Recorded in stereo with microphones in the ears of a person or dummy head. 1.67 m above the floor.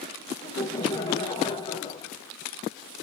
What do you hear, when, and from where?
0.4 s laughter: 20° left (ahead or behind), 1.2 m